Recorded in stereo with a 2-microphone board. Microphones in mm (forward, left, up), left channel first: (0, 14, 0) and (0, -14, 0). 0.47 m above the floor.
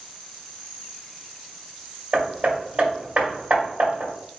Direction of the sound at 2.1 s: 50° right (ahead or behind).